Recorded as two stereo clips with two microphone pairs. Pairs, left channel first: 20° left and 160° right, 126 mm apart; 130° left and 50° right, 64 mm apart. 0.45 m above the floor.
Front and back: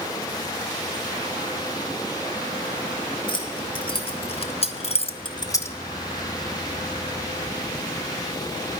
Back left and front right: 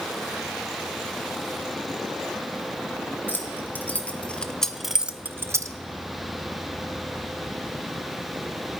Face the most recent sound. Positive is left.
turn(degrees=-50)